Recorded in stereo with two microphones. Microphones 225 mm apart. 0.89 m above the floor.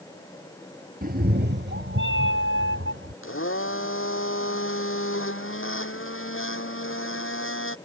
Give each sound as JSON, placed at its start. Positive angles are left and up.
{"t": 1.0, "sound": "a cat meowing", "side_deg": -40}
{"t": 3.2, "sound": "a blender", "side_deg": 65}